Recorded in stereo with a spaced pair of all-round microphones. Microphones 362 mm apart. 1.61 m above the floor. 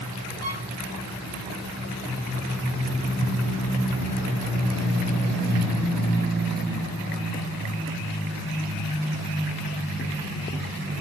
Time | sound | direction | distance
0.4 | a violin | 40° right (ahead or behind) | 7.5 m